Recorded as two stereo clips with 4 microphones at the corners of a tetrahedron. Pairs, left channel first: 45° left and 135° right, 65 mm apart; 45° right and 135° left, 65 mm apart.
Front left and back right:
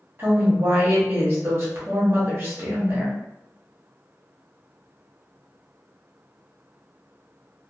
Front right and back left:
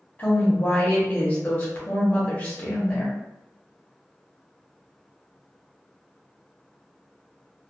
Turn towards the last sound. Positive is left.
turn(degrees=-100)